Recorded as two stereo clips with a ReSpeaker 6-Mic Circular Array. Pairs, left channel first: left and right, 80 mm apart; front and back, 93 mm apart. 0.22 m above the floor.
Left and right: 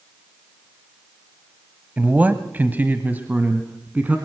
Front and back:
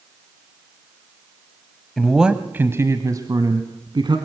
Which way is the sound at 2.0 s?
85° right.